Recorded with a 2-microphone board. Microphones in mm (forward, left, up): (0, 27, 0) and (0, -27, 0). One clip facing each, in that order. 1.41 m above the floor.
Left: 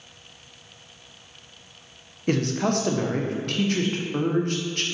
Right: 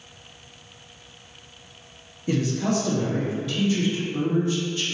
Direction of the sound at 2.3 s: 50° left (ahead or behind).